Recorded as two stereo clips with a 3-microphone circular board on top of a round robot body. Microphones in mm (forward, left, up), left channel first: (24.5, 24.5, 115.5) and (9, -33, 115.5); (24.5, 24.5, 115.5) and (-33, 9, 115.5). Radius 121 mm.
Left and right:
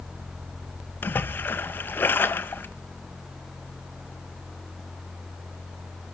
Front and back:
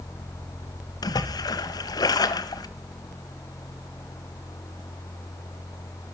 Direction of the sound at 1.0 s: 15° left.